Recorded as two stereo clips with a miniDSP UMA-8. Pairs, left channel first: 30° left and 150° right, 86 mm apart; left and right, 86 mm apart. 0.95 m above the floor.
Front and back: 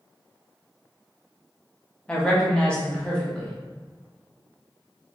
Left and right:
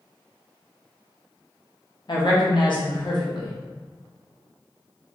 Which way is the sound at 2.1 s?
105° left.